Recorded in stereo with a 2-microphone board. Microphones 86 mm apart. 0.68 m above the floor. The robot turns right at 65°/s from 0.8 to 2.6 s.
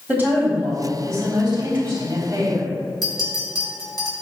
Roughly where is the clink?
Left.